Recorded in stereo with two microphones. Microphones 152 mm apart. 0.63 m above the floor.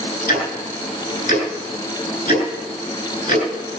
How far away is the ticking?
About 4 m.